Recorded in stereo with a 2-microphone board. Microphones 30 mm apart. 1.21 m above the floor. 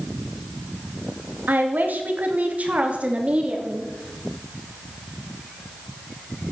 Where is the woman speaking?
75° right (ahead or behind), 2.5 m; by 3.9 s 35° right (ahead or behind), 4 m.